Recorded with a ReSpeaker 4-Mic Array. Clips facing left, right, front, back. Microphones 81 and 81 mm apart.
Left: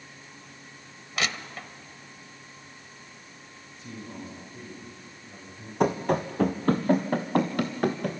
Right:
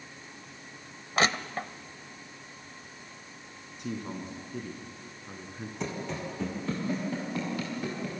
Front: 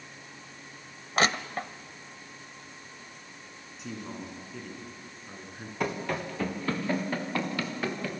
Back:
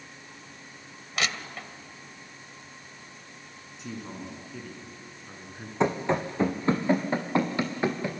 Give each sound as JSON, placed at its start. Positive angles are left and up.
{"t": 1.2, "sound": "crushing", "azimuth_deg": -45, "distance_m": 0.7}
{"t": 3.8, "sound": "a man speaking", "azimuth_deg": -90, "distance_m": 4.5}
{"t": 5.8, "sound": "running footsteps", "azimuth_deg": 115, "distance_m": 1.6}